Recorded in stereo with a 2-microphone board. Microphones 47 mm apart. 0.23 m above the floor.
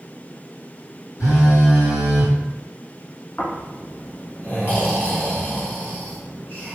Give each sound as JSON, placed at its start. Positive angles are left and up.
{"t": 1.2, "sound": "a phone buzzing", "side_deg": 80, "distance_m": 1.4}
{"t": 3.4, "sound": "snoring", "side_deg": 35, "distance_m": 1.0}